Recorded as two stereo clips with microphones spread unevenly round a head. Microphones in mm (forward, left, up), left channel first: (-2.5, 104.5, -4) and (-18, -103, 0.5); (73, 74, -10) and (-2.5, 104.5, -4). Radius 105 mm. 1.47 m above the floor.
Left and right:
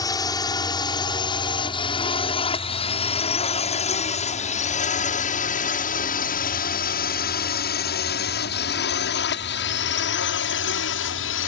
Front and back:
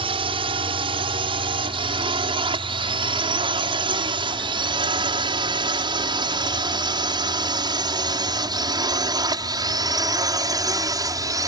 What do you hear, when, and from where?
0.0 s a drone: 160° left; by 11.5 s 115° left